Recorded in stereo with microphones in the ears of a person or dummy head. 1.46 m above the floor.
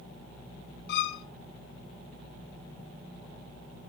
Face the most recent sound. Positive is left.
turn(degrees=60)  # may be behind; listen again after turning